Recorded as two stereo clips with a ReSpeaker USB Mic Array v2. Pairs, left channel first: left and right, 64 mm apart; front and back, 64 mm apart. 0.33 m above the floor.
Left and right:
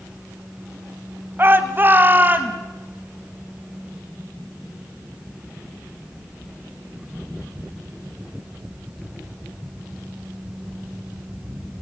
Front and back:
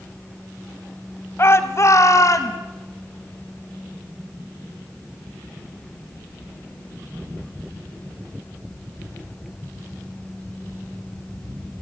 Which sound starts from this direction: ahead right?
A shout, at 1.4 s.